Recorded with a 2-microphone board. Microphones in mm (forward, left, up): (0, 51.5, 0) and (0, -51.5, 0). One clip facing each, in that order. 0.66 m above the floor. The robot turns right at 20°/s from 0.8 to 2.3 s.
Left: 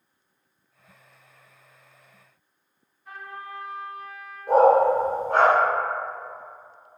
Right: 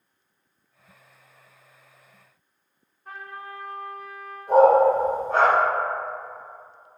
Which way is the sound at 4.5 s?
70° left (ahead or behind).